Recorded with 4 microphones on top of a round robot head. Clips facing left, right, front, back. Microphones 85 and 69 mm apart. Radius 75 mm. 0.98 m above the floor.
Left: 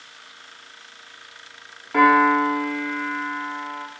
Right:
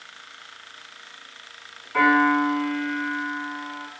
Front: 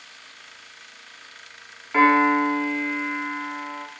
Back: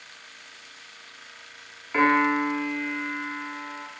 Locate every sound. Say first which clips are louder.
1.9 s a piano: left 3 dB, front 4 dB; 85° left, 2.5 m